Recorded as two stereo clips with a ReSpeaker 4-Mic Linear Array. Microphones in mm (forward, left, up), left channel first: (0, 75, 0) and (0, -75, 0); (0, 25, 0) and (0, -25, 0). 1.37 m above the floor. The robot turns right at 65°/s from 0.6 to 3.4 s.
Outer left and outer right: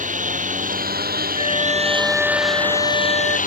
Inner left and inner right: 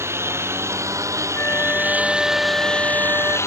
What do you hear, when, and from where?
0.0 s a lawn mower: 120° right; by 3.5 s 60° left
1.4 s a flute: 130° left; by 3.4 s 100° right